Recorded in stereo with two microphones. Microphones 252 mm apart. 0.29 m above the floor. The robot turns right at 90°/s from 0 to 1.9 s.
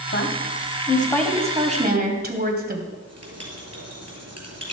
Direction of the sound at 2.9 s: 75° right (ahead or behind).